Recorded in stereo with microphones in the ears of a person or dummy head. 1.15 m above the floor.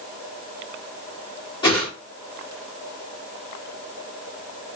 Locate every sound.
1.6 s a whoosh: 25° left (ahead or behind), 2.5 m